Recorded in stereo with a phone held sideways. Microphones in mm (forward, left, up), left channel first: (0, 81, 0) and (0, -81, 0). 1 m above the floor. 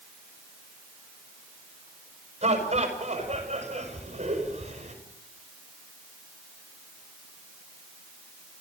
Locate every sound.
2.4 s laughter: 40° right (ahead or behind), 5.5 m